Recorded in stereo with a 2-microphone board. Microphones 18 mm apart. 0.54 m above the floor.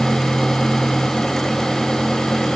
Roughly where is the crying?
No crying in this recording.